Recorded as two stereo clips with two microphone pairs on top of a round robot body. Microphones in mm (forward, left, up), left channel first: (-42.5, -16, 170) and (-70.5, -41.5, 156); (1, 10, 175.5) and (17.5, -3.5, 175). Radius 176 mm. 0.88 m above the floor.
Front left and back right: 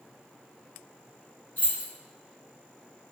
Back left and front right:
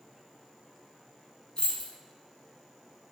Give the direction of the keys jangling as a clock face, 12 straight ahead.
9 o'clock.